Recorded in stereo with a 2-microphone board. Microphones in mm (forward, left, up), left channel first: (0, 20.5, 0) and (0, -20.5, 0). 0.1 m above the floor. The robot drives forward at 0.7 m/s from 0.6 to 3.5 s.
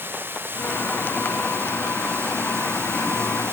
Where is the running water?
60° right (ahead or behind), 3.5 m; by 3.5 s 80° right, 3 m.